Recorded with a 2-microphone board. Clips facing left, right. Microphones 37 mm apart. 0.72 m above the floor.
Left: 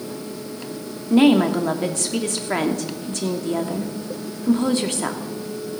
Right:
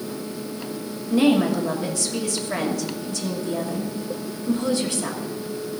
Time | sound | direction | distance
1.1 | a woman speaking | 50° left (ahead or behind) | 1.2 m